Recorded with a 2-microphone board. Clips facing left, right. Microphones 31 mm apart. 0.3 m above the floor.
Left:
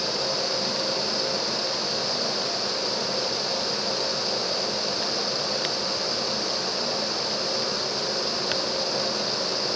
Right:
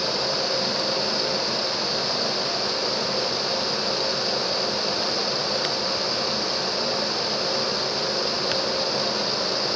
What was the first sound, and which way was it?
Only background noise.